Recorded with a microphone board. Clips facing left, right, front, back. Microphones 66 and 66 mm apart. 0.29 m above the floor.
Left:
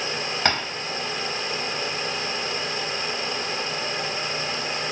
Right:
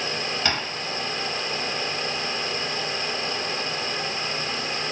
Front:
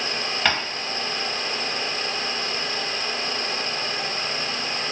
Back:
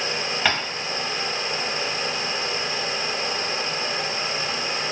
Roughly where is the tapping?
Left.